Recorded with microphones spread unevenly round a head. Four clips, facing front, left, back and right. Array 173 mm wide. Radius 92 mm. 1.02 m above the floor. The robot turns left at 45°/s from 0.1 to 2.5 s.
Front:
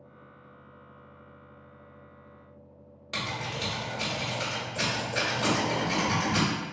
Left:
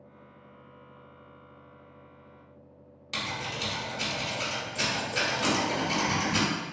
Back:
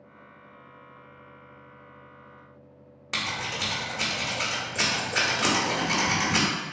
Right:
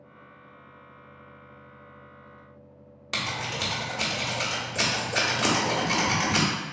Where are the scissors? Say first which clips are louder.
Right 3 dB, back 1 dB; 130° right, 0.9 m.